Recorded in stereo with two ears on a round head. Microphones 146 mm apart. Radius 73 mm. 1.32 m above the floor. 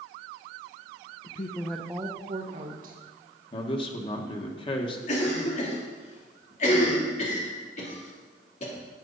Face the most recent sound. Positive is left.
turn(degrees=45)  # may be behind; listen again after turning